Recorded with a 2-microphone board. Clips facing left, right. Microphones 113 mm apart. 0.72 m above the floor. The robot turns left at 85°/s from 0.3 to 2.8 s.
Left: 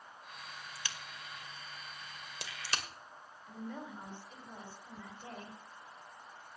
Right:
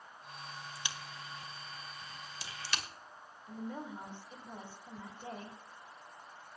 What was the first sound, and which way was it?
A crack, 25° right (ahead or behind).